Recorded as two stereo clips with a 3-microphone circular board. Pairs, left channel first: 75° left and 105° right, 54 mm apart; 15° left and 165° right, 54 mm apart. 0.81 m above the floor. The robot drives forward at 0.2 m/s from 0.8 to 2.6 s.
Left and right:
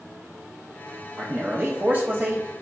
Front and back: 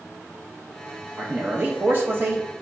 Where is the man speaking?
125° right, 0.7 m; by 2.5 s 145° right, 0.8 m.